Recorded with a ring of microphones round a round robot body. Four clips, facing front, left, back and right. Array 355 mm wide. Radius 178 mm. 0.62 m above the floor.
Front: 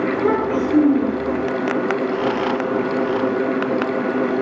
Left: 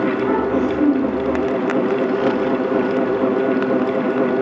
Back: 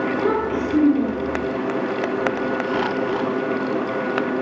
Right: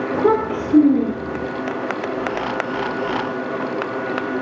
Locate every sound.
0.1 s a child speaking: 80° right, 8 m; by 1.4 s 70° right, 8.5 m